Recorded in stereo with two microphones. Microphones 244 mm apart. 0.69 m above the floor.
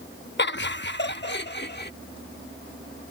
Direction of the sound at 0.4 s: 45° left (ahead or behind).